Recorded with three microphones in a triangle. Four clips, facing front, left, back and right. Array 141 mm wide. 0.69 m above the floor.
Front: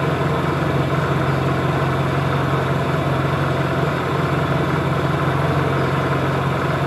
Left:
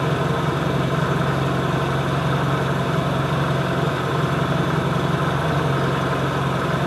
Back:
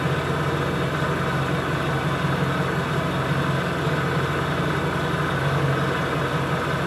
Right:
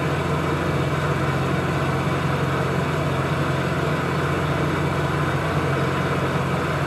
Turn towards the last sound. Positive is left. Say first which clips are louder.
# left 2 dB, front 5 dB
turn(degrees=10)